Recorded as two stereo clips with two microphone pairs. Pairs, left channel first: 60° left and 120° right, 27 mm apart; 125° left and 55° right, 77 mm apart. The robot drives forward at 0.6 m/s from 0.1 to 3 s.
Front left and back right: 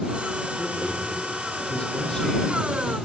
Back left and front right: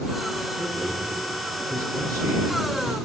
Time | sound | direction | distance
0.6 | a man speaking | 10° right | 5 m